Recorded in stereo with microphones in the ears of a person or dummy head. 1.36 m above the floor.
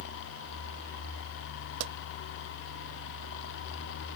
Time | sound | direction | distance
1.8 | a pop | 70° right (ahead or behind) | ?